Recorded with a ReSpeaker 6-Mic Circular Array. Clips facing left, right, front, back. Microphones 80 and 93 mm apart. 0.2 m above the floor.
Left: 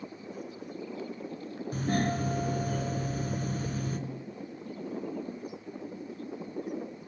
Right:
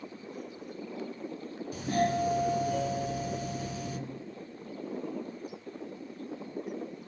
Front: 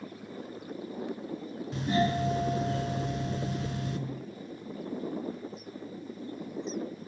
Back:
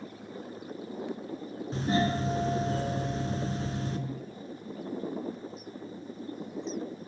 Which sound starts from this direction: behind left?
A doorbell, at 1.7 s.